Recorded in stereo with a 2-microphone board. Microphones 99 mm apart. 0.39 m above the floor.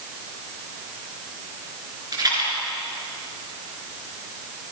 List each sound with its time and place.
2.1 s a rattle: 40° right (ahead or behind), 6.5 m